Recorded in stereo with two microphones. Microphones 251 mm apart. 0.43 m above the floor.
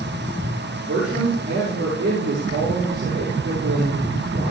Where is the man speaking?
50° right (ahead or behind), 6 m.